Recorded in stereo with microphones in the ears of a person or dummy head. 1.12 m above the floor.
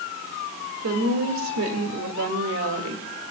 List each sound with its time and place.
0.8 s a woman speaking: 65° right (ahead or behind), 2 m